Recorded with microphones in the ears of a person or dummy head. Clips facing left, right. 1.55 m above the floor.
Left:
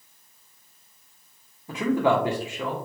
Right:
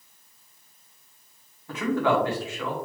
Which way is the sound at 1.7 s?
15° left (ahead or behind).